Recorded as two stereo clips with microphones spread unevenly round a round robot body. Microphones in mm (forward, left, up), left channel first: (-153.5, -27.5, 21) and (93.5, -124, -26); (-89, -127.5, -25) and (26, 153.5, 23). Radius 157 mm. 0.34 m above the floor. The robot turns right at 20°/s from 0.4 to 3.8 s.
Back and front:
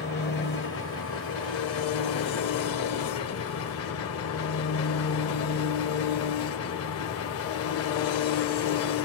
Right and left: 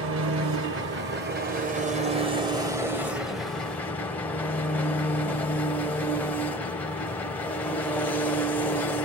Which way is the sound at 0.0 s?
105° left.